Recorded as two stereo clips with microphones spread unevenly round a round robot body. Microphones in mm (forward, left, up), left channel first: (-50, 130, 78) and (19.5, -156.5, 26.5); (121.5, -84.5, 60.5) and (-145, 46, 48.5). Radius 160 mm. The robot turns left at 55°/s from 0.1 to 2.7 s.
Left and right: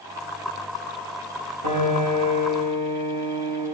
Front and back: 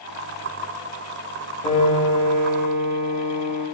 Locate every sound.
1.6 s a piano: 95° right, 3 m; by 3.6 s 150° right, 3 m